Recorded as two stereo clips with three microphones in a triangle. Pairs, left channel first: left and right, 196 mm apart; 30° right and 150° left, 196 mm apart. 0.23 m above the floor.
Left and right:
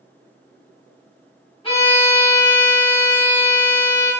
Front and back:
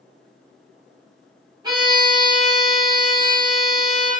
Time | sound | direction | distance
1.6 | a violin | 110° left | 1.3 m